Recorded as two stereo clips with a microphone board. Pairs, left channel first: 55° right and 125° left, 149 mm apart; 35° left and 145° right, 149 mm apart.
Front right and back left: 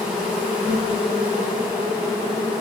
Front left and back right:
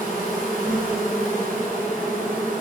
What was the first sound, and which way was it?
An insect, 150° right.